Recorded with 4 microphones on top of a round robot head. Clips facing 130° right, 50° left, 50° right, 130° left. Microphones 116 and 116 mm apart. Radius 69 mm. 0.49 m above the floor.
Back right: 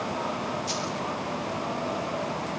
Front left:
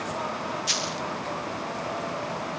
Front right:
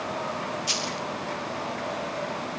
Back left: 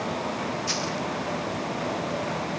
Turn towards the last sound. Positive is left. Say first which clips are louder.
# back right 1 dB, back left 2 dB
turn(degrees=20)